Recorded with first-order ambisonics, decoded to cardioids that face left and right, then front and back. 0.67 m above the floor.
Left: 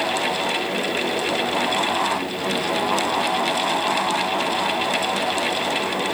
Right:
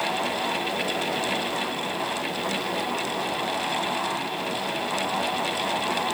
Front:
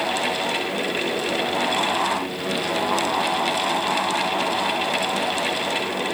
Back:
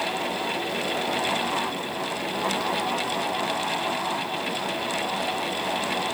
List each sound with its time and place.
Only background noise.